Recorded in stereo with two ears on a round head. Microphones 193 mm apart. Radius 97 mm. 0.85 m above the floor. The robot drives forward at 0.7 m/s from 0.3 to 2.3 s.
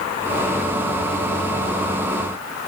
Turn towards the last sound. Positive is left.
No sound to turn to.